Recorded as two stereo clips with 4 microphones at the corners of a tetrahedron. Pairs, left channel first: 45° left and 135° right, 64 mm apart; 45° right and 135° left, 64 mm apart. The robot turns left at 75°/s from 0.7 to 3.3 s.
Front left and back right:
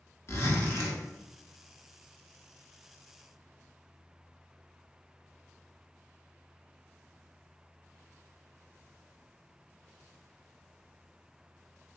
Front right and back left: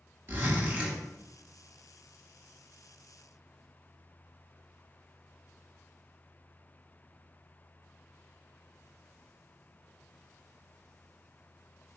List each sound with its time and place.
0.3 s a zipper: 85° left, 0.8 m; by 1.0 s 60° left, 0.8 m